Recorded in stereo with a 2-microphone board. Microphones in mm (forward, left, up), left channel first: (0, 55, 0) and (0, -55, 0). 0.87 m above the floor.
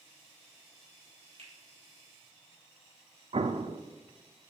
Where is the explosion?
55° right (ahead or behind), 0.5 m.